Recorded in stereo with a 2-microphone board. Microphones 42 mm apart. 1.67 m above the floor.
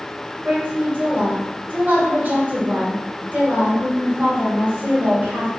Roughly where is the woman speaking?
Right.